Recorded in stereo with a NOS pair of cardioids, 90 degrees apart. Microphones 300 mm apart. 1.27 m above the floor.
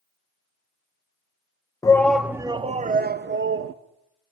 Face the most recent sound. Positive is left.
turn(degrees=-45)